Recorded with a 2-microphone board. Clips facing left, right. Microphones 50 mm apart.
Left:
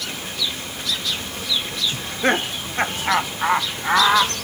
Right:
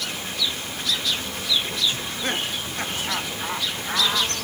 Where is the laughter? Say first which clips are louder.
Left 7 dB; 35° left (ahead or behind); by 4.3 s 40° left (ahead or behind).